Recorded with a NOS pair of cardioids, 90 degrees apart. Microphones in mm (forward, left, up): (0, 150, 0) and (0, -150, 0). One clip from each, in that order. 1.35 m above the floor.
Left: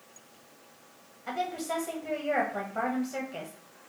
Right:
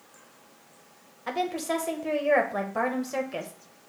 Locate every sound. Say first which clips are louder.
1.3 s a woman speaking: right 4 dB; 40° right, 1.4 m